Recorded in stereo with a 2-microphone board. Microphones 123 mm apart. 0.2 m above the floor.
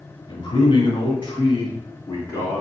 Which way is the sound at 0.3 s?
40° left (ahead or behind).